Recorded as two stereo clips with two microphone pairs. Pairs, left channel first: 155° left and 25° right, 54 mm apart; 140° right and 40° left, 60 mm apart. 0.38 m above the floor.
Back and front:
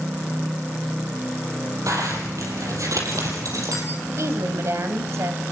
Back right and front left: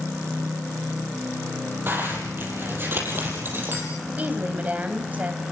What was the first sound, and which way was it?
A zipper, 15° right.